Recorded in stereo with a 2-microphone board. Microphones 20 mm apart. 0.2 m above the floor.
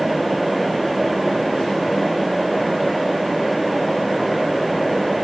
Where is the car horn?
I don't hear a car horn.